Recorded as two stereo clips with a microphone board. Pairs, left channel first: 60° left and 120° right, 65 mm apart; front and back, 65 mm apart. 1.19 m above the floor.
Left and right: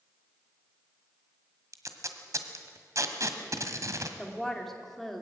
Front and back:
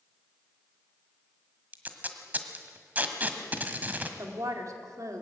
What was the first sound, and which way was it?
Tape being pulled, 125° right.